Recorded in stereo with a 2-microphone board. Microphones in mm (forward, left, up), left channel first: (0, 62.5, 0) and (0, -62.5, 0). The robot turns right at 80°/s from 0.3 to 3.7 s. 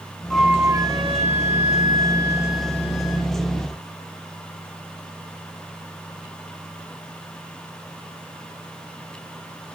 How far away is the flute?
About 0.5 m.